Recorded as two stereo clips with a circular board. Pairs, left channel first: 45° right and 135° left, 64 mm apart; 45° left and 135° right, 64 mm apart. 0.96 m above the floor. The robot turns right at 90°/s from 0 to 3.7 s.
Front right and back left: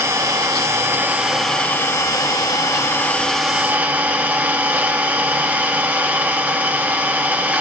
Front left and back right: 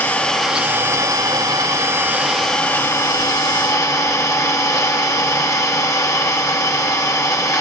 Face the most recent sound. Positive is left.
turn(degrees=70)